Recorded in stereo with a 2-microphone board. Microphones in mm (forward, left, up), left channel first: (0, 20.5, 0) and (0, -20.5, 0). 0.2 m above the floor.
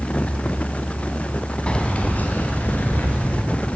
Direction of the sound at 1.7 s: 25° left (ahead or behind).